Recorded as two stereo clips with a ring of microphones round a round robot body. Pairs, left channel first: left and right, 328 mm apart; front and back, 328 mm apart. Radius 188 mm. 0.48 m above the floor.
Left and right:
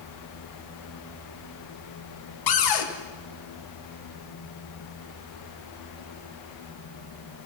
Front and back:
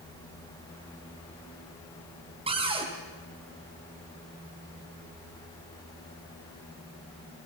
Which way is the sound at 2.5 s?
105° left.